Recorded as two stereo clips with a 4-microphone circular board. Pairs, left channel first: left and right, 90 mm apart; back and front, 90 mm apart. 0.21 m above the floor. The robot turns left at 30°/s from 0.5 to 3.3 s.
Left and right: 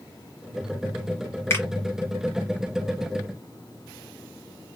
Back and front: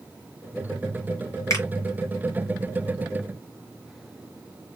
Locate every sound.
1.5 s a finger snap: 145° left, 2 m; by 1.6 s 140° left, 2 m